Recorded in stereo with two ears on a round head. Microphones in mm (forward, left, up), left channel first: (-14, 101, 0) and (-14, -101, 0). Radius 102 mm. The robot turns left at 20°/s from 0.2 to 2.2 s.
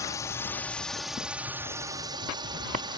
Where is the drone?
15° left; by 3.0 s 25° right.